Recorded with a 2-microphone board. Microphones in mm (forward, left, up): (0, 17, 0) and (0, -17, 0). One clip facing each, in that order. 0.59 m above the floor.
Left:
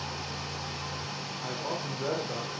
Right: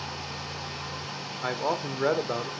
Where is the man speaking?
65° right (ahead or behind), 1.3 m.